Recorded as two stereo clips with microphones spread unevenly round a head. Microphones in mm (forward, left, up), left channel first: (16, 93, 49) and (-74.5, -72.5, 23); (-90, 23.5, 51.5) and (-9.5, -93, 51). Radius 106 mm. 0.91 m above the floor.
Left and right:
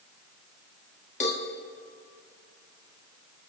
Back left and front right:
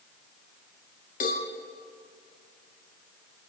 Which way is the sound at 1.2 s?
110° left.